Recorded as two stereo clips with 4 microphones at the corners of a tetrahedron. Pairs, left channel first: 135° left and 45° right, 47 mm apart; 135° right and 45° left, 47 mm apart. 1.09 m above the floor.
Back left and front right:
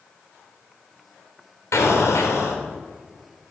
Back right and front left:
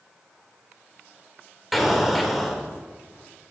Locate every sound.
1.7 s an explosion: 135° left, 3 m